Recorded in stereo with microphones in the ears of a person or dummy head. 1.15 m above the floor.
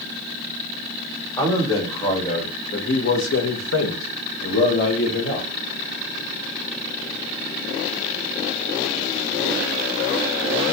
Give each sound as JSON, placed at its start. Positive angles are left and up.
{"t": 1.4, "sound": "a man speaking", "side_deg": 25, "distance_m": 1.8}